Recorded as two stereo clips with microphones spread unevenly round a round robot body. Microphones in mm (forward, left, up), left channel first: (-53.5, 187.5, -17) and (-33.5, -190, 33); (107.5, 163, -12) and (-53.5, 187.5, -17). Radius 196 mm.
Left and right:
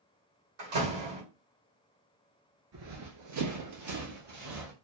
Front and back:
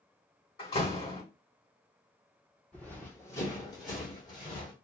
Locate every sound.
0.6 s a door slam: 60° right, 1.5 m
2.7 s running footsteps: 95° right, 0.9 m; by 4.7 s 55° right, 1.6 m